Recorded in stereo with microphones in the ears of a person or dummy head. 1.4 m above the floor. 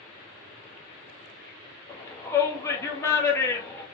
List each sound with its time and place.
1.9 s a shout: 20° left (ahead or behind), 1.6 m